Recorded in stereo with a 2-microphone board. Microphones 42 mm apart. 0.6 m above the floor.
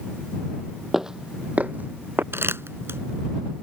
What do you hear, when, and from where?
0.9 s footsteps: 10° right (ahead or behind); by 2.2 s 55° right (ahead or behind)
2.3 s crumpling: 75° right (ahead or behind)